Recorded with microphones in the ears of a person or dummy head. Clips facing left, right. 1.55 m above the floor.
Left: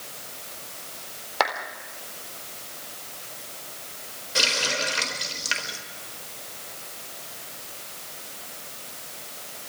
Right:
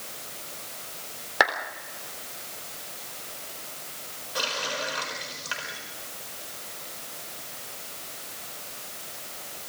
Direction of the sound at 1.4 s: 20° right (ahead or behind).